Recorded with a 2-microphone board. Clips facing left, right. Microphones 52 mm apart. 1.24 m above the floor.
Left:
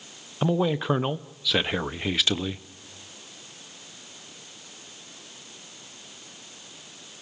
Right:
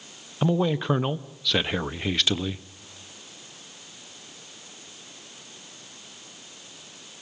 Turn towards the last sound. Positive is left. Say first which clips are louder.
# even
turn(degrees=5)  # may be behind; listen again after turning